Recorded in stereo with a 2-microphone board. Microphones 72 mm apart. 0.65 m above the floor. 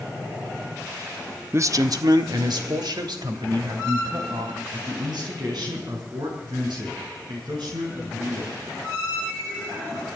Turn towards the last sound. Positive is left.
turn(degrees=-75)  # may be behind; listen again after turning